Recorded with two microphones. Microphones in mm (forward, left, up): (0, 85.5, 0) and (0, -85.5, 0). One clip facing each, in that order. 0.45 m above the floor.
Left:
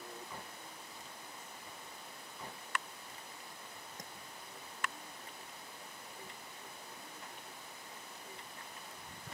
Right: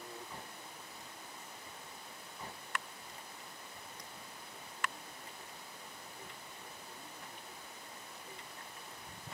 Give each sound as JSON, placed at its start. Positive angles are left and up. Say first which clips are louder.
{"t": 4.0, "sound": "tapping", "louder": "left 2 dB", "side_deg": 45}